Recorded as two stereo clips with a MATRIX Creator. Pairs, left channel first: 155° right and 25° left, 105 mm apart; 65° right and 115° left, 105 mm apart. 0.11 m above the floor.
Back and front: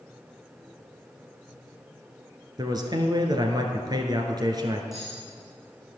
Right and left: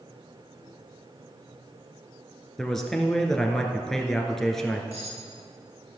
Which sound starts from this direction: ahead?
A man speaking, at 2.6 s.